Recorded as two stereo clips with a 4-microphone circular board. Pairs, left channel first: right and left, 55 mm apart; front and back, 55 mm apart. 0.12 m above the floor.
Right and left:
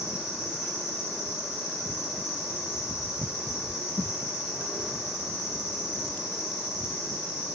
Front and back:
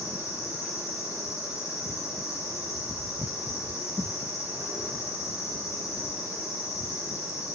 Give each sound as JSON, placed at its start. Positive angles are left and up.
{"t": 0.0, "sound": "an insect", "azimuth_deg": 170, "distance_m": 6.0}